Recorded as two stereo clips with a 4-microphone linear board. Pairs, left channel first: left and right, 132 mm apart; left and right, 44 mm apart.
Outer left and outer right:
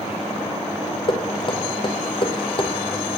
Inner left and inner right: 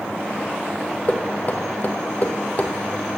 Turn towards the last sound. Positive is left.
turn(degrees=40)  # may be behind; listen again after turning